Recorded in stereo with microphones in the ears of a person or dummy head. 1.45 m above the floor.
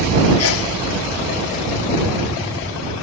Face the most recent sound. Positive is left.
turn(degrees=75)  # may be behind; listen again after turning